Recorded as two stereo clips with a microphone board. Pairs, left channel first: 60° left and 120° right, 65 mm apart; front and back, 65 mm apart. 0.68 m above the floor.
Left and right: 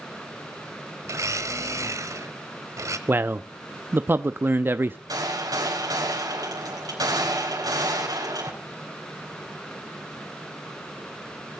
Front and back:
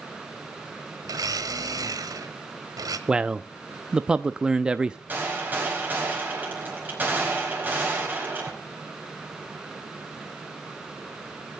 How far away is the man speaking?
About 0.5 m.